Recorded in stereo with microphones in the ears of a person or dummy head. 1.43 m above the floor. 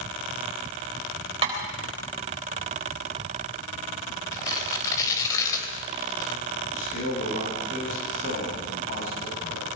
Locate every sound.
1.4 s tapping: 30° right (ahead or behind), 4 m
4.3 s tearing paper: 20° left (ahead or behind), 3.5 m
6.7 s a man speaking: 55° left (ahead or behind), 9.5 m